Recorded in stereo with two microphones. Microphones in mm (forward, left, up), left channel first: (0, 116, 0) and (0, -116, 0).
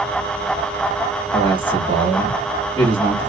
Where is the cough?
No cough in this recording.